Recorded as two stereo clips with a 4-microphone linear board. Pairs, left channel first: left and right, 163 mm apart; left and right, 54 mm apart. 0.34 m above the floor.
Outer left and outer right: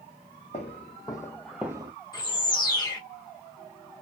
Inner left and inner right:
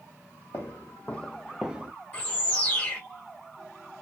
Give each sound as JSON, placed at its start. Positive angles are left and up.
{"t": 0.5, "sound": "footsteps", "side_deg": 40, "distance_m": 1.1}
{"t": 2.1, "sound": "a bird", "side_deg": 25, "distance_m": 1.1}